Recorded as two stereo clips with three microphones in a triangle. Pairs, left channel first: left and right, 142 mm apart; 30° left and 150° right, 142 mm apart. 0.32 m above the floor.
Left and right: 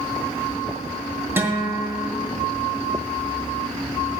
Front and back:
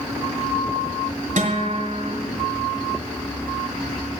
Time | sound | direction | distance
1.4 | a guitar | 160° right | 2 m